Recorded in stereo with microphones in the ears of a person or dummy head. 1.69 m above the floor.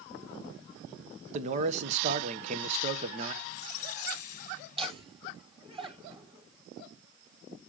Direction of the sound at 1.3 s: 40° right (ahead or behind).